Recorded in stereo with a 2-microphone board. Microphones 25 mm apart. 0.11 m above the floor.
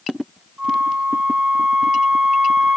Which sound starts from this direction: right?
A flute, at 0.6 s.